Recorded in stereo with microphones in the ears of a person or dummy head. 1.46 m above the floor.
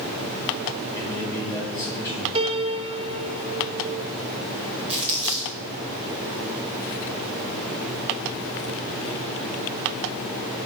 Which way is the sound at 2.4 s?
30° right (ahead or behind).